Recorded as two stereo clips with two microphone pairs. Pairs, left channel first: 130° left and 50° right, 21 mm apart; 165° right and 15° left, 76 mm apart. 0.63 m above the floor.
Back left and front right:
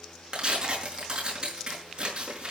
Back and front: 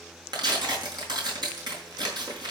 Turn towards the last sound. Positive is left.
turn(degrees=-5)